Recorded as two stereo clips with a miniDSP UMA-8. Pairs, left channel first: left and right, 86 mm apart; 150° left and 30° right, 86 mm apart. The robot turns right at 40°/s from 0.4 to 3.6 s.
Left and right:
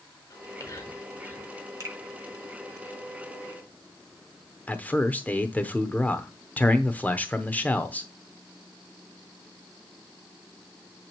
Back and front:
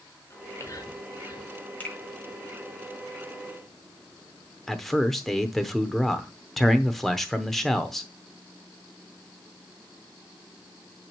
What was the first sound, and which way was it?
Whispering, 105° left.